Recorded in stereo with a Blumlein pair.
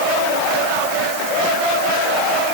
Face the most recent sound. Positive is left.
No sound to turn to.